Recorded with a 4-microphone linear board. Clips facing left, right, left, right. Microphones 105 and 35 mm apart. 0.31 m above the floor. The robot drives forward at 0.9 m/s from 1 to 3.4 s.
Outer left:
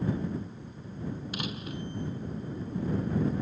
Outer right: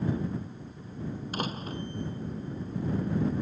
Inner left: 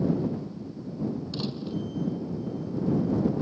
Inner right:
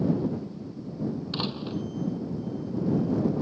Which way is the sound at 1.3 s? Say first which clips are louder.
Outer right 3 dB, inner right 1 dB; 40° right (ahead or behind).